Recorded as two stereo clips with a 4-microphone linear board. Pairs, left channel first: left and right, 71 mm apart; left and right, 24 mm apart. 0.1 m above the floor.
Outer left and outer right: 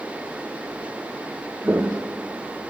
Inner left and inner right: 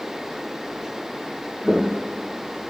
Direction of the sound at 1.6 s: 30° right (ahead or behind).